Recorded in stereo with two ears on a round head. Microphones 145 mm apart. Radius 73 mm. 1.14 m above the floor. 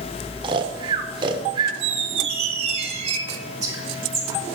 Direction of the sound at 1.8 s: 40° right (ahead or behind).